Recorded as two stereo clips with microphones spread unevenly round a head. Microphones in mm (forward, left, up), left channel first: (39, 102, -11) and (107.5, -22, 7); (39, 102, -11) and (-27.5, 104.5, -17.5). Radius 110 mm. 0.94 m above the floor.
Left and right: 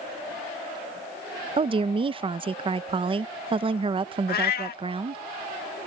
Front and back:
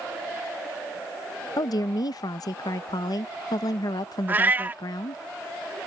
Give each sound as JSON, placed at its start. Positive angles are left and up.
{"t": 1.6, "sound": "a woman speaking", "azimuth_deg": -10}
{"t": 4.3, "sound": "a cat meowing", "azimuth_deg": 115}